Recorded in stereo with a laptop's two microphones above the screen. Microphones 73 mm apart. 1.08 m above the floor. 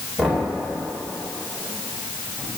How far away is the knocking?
About 2 m.